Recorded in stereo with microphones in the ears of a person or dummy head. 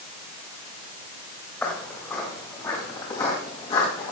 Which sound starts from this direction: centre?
Footsteps, at 1.6 s.